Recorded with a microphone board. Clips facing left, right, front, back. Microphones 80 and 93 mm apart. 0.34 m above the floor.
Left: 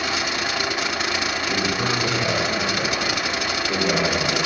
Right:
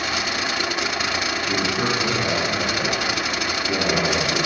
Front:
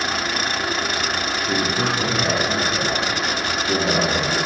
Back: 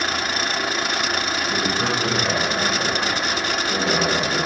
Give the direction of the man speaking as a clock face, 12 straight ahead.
1 o'clock.